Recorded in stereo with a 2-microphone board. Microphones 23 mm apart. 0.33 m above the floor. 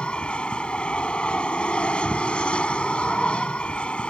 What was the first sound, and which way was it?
An aircraft, 50° left (ahead or behind).